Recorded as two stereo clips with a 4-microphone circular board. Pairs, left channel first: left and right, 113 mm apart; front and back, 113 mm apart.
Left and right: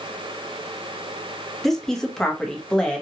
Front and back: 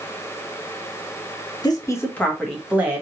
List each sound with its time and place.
1.6 s a woman speaking: 5° left, 0.8 m; by 3.0 s 160° left, 0.7 m